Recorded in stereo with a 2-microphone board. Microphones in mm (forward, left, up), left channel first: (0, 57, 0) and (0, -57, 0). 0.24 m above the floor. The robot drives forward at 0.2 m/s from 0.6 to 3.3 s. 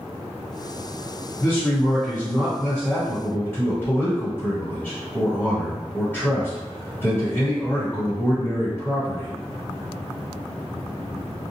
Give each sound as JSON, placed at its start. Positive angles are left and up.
{"t": 1.4, "sound": "a man speaking", "side_deg": 20, "distance_m": 1.4}